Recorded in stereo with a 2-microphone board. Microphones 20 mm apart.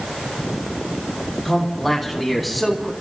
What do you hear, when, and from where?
1.4 s a man speaking: 5° left (ahead or behind), 4.5 m; by 2.9 s centre (ahead or behind), 3 m